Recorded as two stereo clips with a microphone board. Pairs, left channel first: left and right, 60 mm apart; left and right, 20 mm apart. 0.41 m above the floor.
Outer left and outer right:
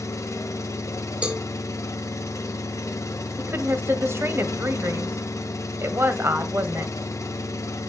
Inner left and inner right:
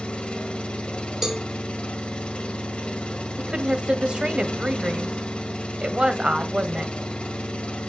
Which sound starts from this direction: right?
A woman speaking, at 3.4 s.